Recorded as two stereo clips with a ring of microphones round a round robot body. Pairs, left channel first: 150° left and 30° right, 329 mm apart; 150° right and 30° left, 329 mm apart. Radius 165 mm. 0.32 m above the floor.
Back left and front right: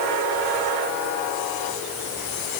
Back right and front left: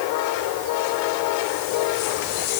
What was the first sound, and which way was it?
Only background noise.